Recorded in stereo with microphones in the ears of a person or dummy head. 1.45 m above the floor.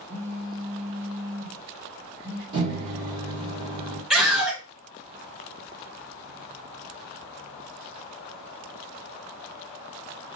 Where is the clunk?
I don't hear a clunk.